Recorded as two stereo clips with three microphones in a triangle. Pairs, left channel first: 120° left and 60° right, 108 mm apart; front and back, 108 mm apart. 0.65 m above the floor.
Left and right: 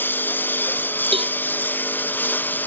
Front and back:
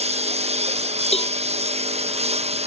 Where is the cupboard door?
I don't hear a cupboard door.